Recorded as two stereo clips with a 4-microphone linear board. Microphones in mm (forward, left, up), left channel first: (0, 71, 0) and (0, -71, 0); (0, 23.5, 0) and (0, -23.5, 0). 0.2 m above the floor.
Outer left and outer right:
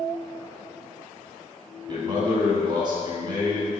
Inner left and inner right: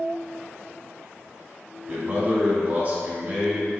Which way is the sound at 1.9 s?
30° right (ahead or behind).